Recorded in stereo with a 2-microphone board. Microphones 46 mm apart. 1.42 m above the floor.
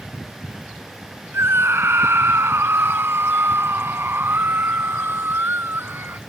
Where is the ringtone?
I don't hear a ringtone.